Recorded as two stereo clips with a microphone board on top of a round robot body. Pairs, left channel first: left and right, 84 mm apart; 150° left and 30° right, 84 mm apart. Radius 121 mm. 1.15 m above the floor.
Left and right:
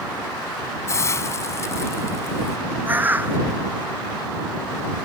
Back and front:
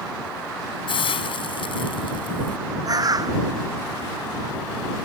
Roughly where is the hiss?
Behind left.